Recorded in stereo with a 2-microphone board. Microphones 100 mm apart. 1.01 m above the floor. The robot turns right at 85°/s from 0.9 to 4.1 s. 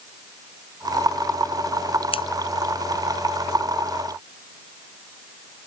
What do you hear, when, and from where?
2.1 s scissors: 65° left (ahead or behind); by 2.2 s 75° left (ahead or behind)